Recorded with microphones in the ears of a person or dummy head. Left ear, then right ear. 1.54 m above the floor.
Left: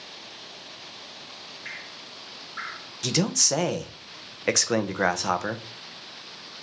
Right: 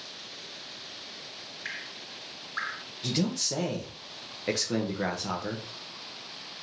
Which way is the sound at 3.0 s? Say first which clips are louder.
Left 7 dB; 45° left (ahead or behind).